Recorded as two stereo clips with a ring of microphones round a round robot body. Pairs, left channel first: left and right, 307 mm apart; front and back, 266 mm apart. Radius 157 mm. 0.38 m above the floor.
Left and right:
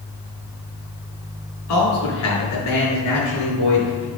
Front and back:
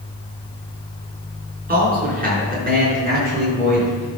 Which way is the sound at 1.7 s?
125° left.